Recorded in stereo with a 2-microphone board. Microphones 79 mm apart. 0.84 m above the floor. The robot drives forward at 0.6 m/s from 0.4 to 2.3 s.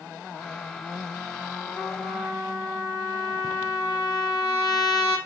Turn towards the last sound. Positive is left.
turn(degrees=60)  # may be behind; listen again after turning